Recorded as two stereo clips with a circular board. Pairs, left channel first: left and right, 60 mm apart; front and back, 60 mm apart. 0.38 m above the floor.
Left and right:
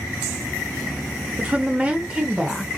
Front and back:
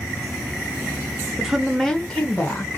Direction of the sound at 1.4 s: 110° right.